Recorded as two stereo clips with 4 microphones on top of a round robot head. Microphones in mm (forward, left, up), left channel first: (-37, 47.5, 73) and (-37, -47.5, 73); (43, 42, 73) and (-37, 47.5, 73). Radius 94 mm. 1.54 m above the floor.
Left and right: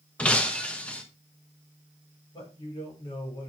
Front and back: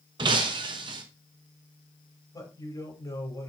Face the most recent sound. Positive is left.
turn(degrees=40)